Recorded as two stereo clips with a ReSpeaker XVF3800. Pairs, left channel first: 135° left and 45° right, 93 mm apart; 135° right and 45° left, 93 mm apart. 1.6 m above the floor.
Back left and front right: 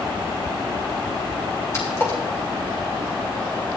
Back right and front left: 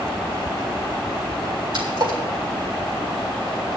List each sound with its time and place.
1.7 s a splash: 75° left, 3 m